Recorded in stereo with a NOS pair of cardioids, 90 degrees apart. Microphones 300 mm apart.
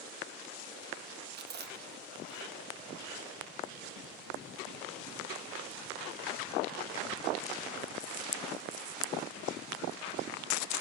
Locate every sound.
1.3 s chewing: 35° right, 0.9 m